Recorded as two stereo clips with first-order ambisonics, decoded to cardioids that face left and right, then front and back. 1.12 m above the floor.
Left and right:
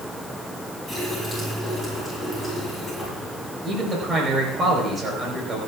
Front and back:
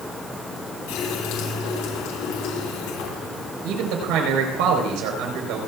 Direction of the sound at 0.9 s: 5° right.